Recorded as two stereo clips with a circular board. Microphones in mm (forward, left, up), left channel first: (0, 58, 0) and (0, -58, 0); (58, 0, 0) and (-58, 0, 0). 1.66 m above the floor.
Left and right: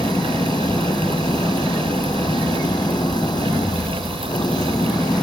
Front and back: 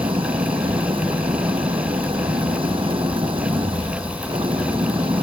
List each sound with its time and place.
0.0 s an engine running: 140° left